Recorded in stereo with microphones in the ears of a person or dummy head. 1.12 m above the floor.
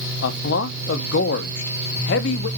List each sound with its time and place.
0.2 s a man speaking: 65° left (ahead or behind), 0.6 m